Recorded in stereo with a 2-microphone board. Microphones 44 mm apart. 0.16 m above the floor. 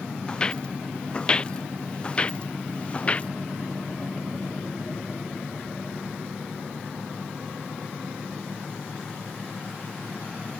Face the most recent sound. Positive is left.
turn(degrees=30)  # may be behind; listen again after turning